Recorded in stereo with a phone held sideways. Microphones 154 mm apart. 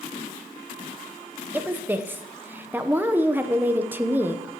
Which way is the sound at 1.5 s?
15° right (ahead or behind).